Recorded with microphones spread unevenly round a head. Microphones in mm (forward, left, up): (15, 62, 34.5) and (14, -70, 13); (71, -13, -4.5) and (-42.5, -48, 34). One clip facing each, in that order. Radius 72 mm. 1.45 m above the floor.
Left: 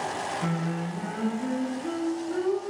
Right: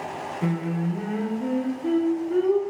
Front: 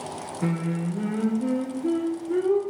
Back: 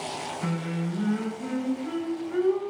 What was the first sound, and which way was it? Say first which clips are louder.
Singing: right 4 dB, front 5 dB; 30° right.